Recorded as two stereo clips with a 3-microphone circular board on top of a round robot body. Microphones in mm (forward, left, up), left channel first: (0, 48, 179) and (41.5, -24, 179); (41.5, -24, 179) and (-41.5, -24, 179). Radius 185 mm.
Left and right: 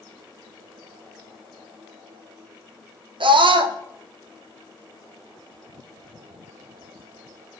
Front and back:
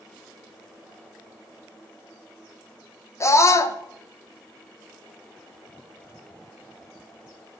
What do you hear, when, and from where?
3.2 s a scream: 55° right, 0.9 m